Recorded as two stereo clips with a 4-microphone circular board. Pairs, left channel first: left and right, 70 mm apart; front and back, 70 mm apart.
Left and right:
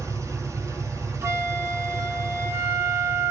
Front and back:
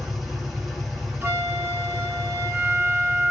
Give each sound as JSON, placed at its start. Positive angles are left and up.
{"t": 0.0, "sound": "an engine running", "azimuth_deg": -85, "distance_m": 1.9}
{"t": 1.2, "sound": "a flute", "azimuth_deg": -125, "distance_m": 0.9}